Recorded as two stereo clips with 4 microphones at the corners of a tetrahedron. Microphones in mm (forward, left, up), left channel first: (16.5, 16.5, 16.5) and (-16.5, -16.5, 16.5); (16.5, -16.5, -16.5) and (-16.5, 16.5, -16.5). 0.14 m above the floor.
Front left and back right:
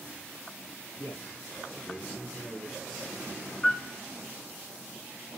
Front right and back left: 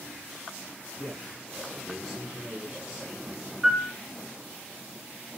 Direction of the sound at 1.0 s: 35° left.